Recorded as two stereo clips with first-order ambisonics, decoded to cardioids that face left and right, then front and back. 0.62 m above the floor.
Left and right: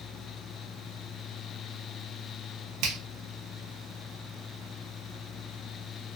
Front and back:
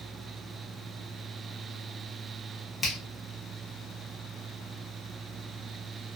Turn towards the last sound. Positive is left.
turn(degrees=-75)